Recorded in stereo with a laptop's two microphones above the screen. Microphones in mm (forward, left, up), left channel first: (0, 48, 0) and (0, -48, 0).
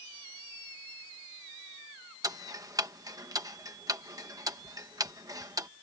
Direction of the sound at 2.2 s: 35° right (ahead or behind).